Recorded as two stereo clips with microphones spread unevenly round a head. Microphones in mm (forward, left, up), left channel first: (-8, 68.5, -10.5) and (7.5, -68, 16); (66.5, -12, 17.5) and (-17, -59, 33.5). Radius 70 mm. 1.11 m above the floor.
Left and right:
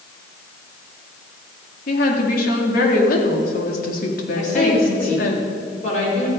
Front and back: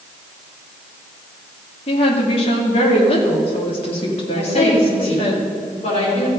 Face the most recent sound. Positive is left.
turn(degrees=55)